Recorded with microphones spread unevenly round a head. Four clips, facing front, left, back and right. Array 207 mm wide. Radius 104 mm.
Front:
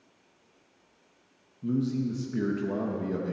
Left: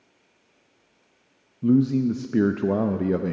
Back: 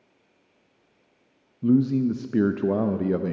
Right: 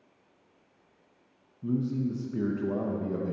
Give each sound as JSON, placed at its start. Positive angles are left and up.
{"t": 1.6, "sound": "a man speaking", "azimuth_deg": 115, "distance_m": 0.6}